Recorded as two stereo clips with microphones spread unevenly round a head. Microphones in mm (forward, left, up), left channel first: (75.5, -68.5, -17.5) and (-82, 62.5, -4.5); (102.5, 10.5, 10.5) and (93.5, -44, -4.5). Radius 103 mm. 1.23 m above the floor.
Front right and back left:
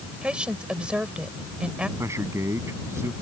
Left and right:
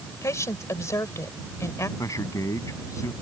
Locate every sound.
0.2 s a woman speaking: 55° left
2.0 s a man speaking: 65° left